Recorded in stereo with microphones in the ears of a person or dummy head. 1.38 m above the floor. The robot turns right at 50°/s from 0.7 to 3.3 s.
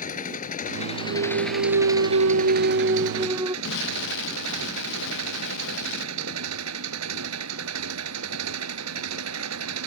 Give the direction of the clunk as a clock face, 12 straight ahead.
4 o'clock.